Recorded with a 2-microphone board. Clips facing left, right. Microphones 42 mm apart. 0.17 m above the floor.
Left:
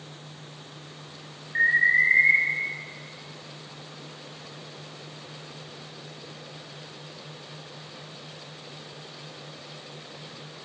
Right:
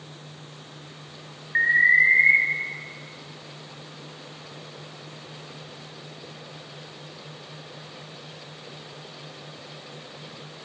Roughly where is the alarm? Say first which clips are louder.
Right 3 dB; right.